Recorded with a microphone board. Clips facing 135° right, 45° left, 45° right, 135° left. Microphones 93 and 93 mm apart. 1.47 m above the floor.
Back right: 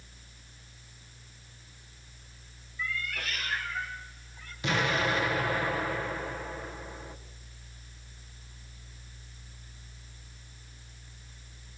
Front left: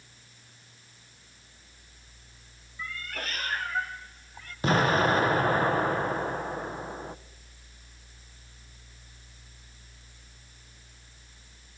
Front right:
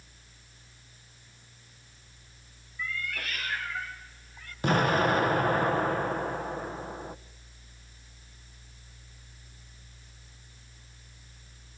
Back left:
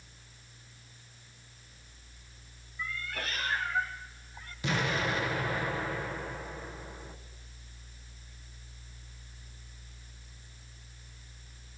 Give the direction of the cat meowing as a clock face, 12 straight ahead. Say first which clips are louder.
Back right 2 dB, front right 2 dB; 9 o'clock.